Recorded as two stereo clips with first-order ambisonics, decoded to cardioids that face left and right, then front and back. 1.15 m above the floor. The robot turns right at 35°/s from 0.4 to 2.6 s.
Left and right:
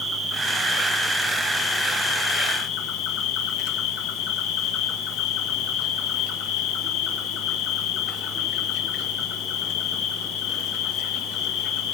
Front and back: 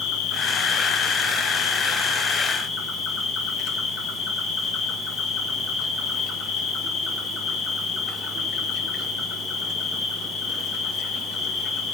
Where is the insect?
15° right, 1.4 m; by 11.9 s 60° left, 1.4 m.